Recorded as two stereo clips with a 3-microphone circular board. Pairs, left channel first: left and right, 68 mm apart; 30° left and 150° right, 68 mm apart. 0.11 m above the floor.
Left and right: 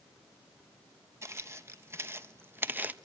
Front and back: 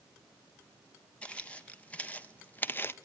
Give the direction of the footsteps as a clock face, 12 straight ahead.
1 o'clock.